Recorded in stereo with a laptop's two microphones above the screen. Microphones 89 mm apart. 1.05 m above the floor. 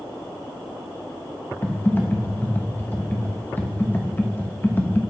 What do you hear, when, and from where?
1.6 s typing on a keyboard: 20° left (ahead or behind), 0.8 m